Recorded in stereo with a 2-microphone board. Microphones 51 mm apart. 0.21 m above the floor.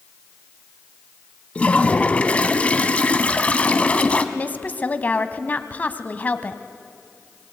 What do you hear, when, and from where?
1.6 s a toilet flushing: 25° left (ahead or behind), 1.0 m
4.3 s a woman speaking: 30° left (ahead or behind), 1.1 m